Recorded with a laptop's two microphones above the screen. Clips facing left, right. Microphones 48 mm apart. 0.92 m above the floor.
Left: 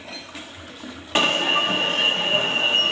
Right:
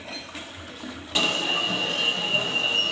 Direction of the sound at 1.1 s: 35° left (ahead or behind).